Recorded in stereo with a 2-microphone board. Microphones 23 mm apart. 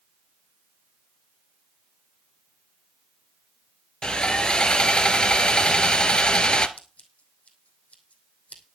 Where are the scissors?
70° left (ahead or behind), 2.5 m.